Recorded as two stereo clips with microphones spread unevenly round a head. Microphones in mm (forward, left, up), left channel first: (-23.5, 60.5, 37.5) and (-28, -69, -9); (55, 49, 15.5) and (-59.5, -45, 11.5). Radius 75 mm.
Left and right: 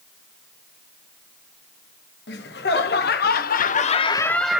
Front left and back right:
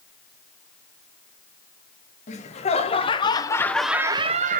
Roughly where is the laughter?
Left.